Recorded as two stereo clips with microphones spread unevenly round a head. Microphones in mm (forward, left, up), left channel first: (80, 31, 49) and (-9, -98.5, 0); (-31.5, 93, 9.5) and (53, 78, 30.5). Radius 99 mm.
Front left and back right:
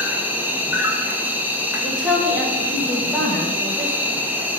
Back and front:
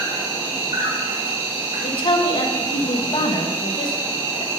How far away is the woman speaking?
About 1.6 m.